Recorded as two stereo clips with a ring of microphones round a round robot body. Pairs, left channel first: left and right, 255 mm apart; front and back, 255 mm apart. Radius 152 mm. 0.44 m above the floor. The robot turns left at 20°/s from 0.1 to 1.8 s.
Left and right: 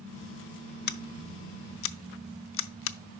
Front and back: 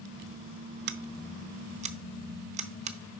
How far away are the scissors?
About 0.7 m.